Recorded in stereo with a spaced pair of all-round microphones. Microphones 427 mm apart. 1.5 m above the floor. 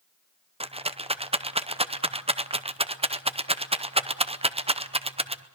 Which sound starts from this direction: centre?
A rattle, at 0.6 s.